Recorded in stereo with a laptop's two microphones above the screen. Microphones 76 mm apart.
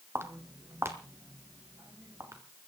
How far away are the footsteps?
About 1.5 m.